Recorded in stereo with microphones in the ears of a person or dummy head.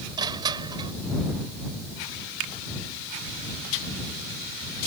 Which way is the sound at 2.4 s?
70° right (ahead or behind).